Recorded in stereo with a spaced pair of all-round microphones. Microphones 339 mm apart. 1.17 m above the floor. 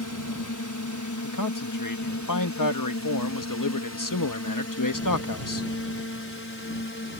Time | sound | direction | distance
0.0 | a drone | 60° left (ahead or behind) | ?
1.2 | a man speaking | 65° left (ahead or behind) | ?